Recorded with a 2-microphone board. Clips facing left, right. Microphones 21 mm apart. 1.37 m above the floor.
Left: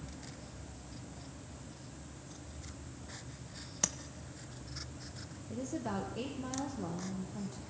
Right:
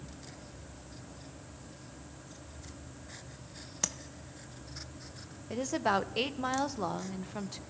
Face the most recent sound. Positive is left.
turn(degrees=-70)  # may be behind; listen again after turning